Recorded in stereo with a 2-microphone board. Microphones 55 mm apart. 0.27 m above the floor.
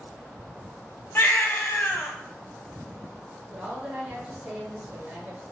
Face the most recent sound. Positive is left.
turn(degrees=-20)  # may be behind; listen again after turning